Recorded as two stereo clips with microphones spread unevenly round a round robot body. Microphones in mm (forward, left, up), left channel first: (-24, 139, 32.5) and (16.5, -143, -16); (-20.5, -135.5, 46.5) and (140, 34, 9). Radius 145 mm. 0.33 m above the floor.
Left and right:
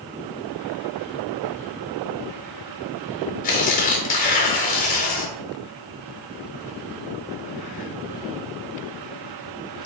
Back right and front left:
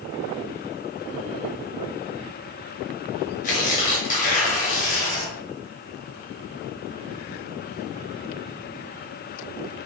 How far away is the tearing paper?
About 0.9 m.